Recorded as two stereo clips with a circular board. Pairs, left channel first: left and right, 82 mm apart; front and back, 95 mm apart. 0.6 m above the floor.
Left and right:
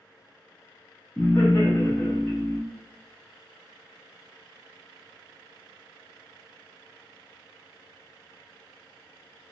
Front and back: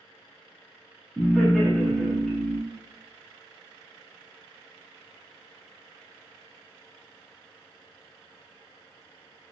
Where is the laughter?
75° left, 0.9 m.